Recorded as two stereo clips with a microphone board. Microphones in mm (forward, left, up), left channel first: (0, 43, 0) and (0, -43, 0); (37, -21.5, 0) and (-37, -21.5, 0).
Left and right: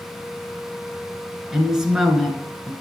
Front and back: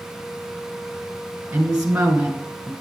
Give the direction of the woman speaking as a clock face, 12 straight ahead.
5 o'clock.